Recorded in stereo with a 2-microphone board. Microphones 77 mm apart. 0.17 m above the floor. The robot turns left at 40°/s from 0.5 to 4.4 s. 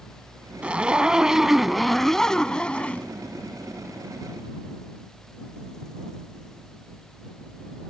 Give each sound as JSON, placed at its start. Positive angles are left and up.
{"t": 0.6, "sound": "a zipper", "side_deg": -15}